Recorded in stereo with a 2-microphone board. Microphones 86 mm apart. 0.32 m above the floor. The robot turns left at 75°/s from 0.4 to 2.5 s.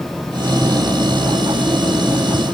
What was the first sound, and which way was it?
Only background noise.